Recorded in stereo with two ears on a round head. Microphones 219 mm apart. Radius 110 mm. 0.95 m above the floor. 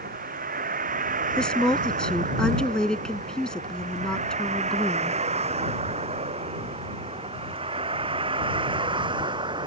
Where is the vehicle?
35° right (ahead or behind); by 9.7 s 20° right (ahead or behind).